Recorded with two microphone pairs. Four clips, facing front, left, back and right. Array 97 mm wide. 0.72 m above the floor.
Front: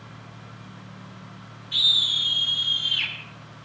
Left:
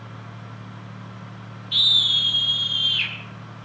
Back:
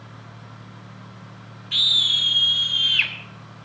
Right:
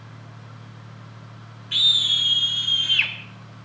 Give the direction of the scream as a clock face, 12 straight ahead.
5 o'clock.